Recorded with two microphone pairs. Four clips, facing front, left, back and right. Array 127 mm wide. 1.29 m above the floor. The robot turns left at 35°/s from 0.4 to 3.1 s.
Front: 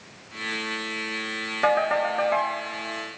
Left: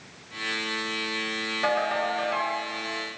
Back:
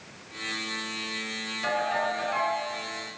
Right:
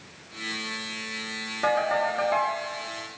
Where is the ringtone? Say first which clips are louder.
Right 2 dB, front 6 dB; 5° right, 2 m; by 2.6 s 40° right, 2 m.